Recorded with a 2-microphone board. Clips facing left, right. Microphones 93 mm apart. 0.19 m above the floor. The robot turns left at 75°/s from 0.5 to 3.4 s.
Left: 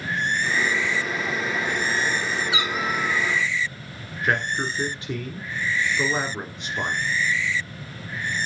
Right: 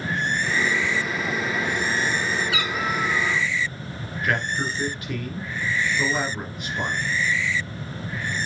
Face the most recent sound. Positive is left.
turn(degrees=30)  # may be behind; listen again after turning